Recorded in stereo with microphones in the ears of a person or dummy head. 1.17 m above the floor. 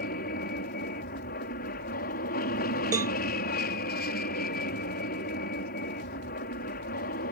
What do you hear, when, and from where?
0.0 s an aircraft: 45° left (ahead or behind)
2.9 s a cowbell: 15° right (ahead or behind)